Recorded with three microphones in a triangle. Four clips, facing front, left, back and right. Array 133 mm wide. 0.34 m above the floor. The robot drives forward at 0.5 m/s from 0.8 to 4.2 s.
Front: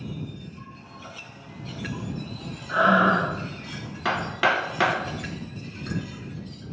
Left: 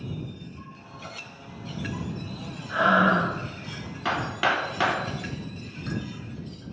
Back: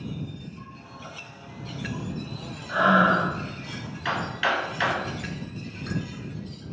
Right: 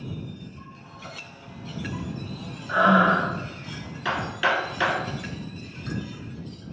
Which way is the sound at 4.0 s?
25° left.